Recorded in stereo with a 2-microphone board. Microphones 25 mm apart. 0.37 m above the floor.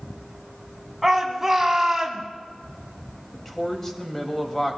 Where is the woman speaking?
10° left (ahead or behind), 2.0 m.